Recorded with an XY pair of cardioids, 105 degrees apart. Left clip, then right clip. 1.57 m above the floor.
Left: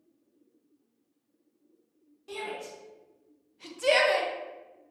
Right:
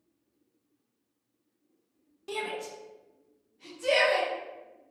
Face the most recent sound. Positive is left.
turn(degrees=80)